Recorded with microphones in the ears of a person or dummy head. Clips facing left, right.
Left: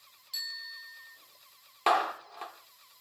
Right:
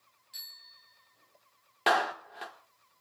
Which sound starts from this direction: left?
A bicycle bell, at 0.3 s.